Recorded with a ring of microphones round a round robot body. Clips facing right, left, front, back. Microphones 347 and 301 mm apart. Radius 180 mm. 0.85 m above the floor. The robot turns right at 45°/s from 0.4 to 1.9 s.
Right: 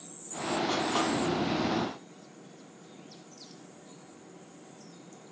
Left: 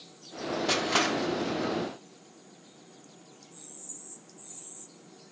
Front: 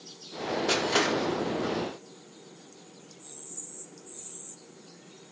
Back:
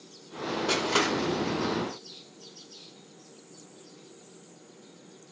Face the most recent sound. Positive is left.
turn(degrees=150)